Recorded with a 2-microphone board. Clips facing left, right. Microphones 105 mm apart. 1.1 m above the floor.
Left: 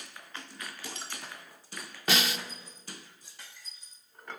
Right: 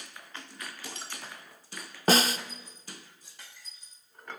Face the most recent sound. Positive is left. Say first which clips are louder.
# right 6 dB
turn(degrees=-40)  # may be behind; listen again after turning